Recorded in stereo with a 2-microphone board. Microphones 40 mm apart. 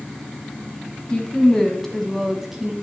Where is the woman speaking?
25° left (ahead or behind), 1.3 m; by 2.7 s 15° right (ahead or behind), 1.1 m.